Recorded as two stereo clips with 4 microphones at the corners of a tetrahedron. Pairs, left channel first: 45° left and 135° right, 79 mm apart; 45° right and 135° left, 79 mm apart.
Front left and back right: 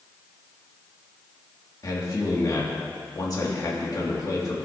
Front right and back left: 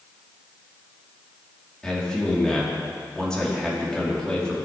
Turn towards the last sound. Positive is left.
turn(degrees=35)